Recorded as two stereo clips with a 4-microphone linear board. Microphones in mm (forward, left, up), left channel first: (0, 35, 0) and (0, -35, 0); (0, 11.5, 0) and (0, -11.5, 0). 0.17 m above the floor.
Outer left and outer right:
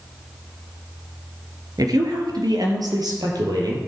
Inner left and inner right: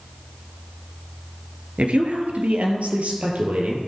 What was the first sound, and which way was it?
A woman speaking, 65° right (ahead or behind).